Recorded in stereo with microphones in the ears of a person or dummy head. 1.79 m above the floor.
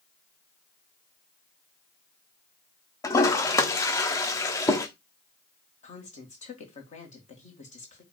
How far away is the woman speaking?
About 2 m.